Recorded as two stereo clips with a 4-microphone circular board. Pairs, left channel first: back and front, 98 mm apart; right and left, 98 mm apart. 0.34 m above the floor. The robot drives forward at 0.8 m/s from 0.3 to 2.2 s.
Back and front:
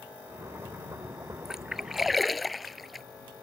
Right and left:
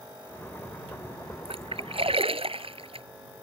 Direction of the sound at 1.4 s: 85° left.